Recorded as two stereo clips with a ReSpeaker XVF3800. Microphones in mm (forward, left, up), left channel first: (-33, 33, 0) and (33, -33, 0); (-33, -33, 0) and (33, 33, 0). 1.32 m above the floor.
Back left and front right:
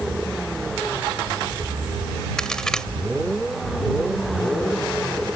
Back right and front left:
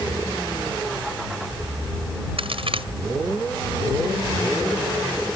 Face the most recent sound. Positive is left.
turn(degrees=50)